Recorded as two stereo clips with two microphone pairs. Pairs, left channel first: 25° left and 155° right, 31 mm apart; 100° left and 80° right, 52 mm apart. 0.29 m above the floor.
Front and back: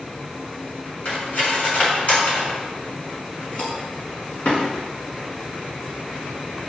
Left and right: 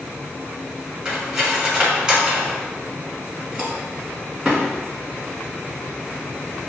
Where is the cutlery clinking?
5° right, 1.4 m.